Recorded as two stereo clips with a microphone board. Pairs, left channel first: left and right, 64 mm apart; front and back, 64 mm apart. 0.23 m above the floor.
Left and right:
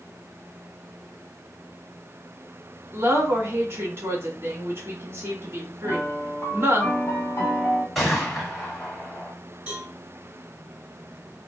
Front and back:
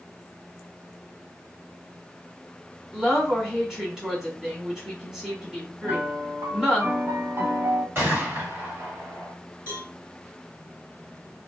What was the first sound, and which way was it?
A woman speaking, 100° right.